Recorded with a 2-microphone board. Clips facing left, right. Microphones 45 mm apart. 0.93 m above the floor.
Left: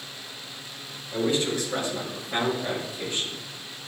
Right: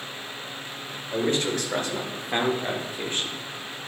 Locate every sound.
1.1 s a man speaking: 60° right (ahead or behind), 4 m; by 3.4 s 40° right (ahead or behind), 2 m